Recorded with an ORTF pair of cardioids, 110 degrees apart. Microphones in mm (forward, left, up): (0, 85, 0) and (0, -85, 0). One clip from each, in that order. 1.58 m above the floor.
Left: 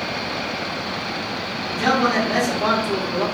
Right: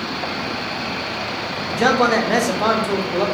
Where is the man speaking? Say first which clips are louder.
Right 3 dB; 60° right, 1.1 m; by 3.2 s 15° right, 1.0 m.